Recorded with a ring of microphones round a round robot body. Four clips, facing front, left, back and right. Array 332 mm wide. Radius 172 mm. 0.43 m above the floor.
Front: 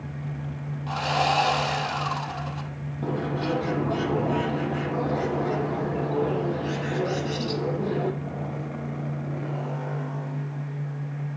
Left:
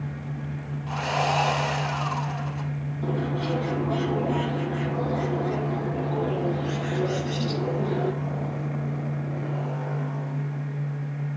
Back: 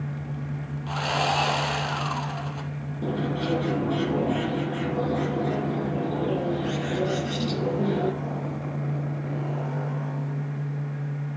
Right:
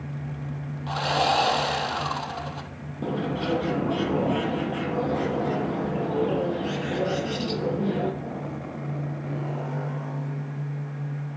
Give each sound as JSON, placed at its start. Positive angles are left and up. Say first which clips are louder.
{"t": 0.9, "sound": "sawing", "louder": "right 2 dB, front 2 dB", "azimuth_deg": -110, "distance_m": 3.0}
{"t": 3.0, "sound": "a bird", "louder": "right 1 dB, even", "azimuth_deg": -125, "distance_m": 6.0}